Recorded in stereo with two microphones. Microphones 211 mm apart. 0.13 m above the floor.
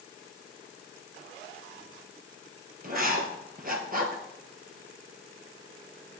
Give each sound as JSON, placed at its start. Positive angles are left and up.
{"t": 2.8, "sound": "writing", "side_deg": -40, "distance_m": 1.2}